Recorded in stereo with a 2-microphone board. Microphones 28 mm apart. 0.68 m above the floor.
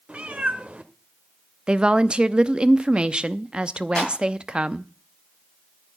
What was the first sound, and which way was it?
A cat meowing, 50° right (ahead or behind).